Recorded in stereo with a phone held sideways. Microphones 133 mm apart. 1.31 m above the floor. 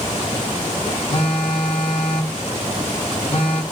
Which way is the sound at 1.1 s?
40° left (ahead or behind).